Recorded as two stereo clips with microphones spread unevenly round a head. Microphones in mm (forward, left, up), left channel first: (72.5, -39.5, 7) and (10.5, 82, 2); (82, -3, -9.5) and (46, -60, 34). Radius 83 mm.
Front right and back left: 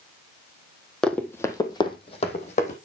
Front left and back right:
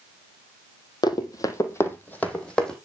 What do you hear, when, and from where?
1.0 s running footsteps: 20° left, 2.0 m; by 2.8 s 35° right, 2.5 m